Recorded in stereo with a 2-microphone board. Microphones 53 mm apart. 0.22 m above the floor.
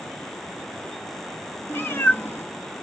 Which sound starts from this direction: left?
A cat meowing, at 1.7 s.